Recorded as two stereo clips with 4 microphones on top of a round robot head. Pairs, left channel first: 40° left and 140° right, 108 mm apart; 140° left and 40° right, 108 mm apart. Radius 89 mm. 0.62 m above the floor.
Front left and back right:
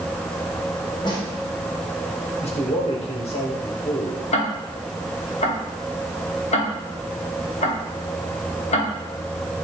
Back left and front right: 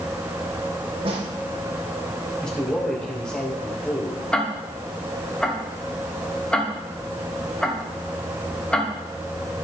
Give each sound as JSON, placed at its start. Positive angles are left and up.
{"t": 1.1, "sound": "a snare drum", "azimuth_deg": -10, "distance_m": 2.5}
{"t": 2.4, "sound": "a man speaking", "azimuth_deg": 60, "distance_m": 2.5}
{"t": 4.3, "sound": "ticking", "azimuth_deg": 60, "distance_m": 1.8}